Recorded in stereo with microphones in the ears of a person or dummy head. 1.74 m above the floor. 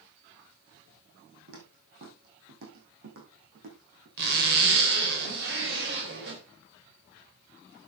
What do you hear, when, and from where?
1.5 s footsteps: 55° right (ahead or behind), 4 m; by 4.1 s 60° right (ahead or behind), 5.5 m
4.2 s a zipper: 65° right (ahead or behind), 3.5 m